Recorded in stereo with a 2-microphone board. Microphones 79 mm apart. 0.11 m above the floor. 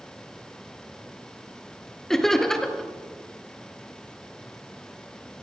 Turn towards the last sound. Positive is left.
turn(degrees=5)  # may be behind; listen again after turning